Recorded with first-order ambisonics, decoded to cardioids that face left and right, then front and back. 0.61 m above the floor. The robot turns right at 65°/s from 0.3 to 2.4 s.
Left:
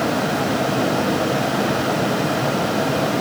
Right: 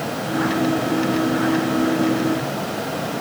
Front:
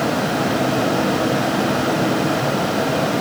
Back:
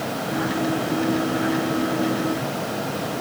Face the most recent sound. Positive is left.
No sound to turn to.